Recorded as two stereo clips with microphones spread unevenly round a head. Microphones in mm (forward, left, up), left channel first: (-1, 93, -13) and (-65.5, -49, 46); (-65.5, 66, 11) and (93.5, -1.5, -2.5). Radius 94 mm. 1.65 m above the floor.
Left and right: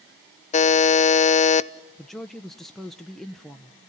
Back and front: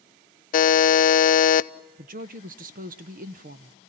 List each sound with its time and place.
0.5 s a buzzer: 120° left, 0.6 m
2.0 s a woman speaking: 45° right, 0.7 m